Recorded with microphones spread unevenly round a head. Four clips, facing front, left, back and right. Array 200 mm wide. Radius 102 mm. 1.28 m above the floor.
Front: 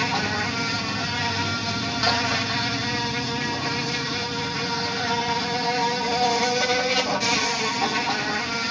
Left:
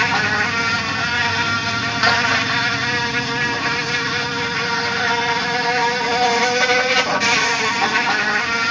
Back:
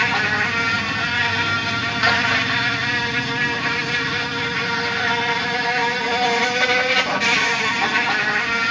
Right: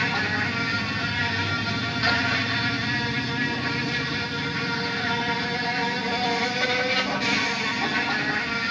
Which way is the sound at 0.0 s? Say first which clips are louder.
Left 7 dB, back 4 dB; 100° left.